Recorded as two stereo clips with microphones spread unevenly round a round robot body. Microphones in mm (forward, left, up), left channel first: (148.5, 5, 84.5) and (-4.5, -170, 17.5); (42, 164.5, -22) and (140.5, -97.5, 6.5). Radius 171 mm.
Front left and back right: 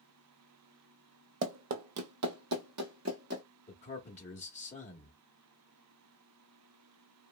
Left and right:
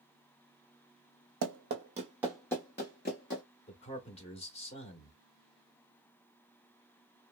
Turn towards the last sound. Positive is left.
turn(degrees=105)